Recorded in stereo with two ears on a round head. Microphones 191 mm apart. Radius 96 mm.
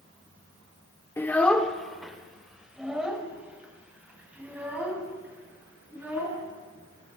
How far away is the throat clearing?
No throat clearing in this recording.